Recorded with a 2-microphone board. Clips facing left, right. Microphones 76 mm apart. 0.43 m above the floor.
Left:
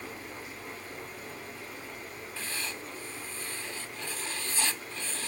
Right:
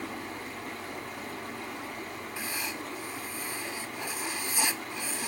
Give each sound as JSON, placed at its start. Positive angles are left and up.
{"t": 0.0, "sound": "running water", "side_deg": -75, "distance_m": 2.5}
{"t": 2.4, "sound": "writing", "side_deg": -15, "distance_m": 0.7}